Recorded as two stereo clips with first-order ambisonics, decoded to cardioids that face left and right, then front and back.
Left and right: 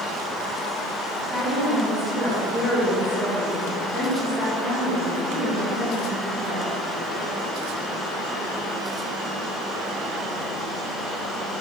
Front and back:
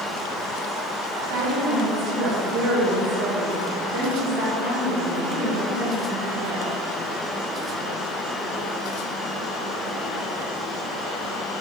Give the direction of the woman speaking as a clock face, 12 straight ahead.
6 o'clock.